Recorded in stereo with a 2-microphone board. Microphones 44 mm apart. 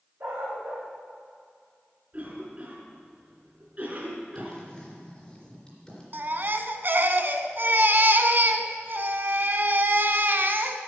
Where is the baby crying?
45° right (ahead or behind), 0.7 m.